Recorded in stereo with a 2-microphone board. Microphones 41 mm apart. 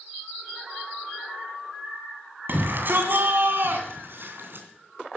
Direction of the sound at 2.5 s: 55° right (ahead or behind).